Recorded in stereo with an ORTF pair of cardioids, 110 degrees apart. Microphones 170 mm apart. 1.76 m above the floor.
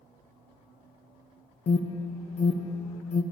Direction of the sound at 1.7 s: 40° left.